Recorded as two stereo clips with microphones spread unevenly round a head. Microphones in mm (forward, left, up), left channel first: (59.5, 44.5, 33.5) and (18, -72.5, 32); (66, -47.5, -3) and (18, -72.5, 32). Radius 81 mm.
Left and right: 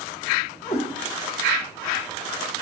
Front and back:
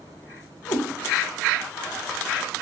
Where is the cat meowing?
5° left, 0.9 m.